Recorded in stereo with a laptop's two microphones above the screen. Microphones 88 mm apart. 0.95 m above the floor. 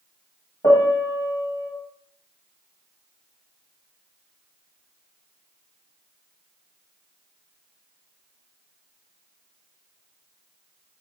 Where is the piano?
60° left (ahead or behind), 1.0 m.